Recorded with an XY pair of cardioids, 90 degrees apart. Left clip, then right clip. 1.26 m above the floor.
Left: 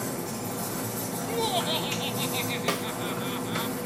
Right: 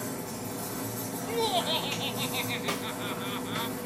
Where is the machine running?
45° left, 1.0 m.